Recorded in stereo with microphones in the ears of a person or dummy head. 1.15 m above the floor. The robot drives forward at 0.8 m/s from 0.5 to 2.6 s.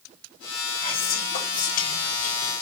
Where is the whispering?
30° left (ahead or behind), 2 m; by 2.5 s 65° left (ahead or behind), 1.2 m.